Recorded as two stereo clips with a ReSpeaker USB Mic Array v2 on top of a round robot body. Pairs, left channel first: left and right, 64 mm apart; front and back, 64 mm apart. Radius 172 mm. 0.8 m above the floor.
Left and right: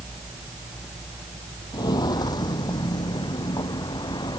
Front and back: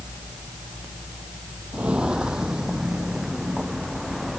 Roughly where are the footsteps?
Left.